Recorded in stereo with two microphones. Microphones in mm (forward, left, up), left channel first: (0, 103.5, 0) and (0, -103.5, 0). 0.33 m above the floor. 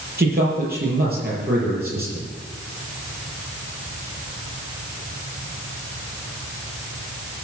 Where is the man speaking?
50° right (ahead or behind), 7 m.